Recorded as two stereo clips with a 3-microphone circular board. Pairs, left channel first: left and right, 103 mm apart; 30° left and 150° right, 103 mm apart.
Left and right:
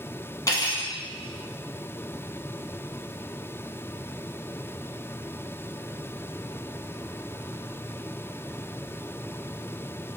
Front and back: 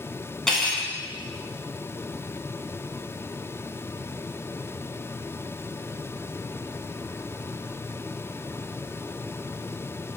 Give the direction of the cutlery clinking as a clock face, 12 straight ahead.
8 o'clock.